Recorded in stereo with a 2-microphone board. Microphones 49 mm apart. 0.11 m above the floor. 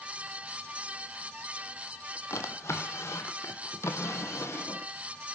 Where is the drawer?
70° left (ahead or behind), 2.0 m.